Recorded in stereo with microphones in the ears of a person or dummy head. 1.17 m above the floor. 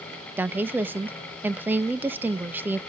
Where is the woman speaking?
10° right (ahead or behind), 0.7 m.